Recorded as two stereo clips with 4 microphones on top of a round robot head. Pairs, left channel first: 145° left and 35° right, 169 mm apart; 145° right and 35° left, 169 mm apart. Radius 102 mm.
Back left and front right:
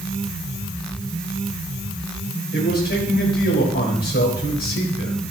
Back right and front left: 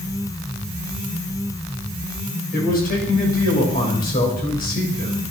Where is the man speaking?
175° left, 3 m.